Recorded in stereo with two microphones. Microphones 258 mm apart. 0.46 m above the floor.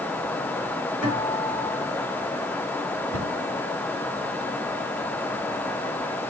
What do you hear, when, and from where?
1.0 s a guitar: 65° right (ahead or behind), 5 m
3.1 s a cupboard door: 70° right (ahead or behind), 2 m